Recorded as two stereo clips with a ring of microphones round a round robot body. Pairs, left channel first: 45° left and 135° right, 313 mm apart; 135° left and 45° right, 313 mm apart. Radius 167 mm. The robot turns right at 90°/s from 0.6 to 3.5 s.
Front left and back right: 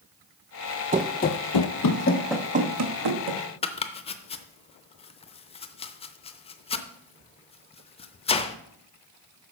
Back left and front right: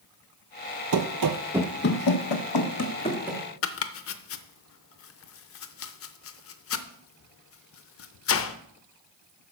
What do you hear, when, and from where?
0.9 s running footsteps: 75° right, 0.5 m; by 3.4 s 115° right, 1.7 m
3.6 s chopping: 110° left, 0.6 m